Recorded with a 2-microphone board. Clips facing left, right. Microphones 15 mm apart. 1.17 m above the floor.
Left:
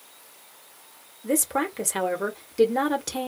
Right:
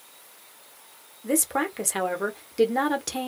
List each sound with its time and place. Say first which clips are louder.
1.2 s a woman speaking: even; 5° right (ahead or behind), 0.9 m